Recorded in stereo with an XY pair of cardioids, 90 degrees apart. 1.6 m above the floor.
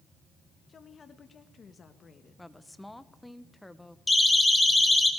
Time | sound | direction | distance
0.7 | a woman speaking | 45° left | 2.0 m
2.4 | a woman speaking | 10° left | 1.6 m
4.1 | a siren | 15° left | 4.5 m